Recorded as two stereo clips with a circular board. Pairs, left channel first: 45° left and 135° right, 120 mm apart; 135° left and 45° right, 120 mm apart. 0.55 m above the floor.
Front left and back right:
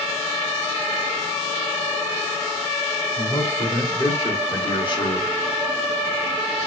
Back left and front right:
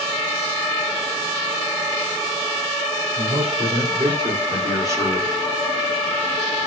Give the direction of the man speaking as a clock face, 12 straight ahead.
1 o'clock.